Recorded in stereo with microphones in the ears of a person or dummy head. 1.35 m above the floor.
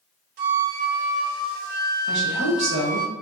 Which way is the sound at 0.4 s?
50° right (ahead or behind).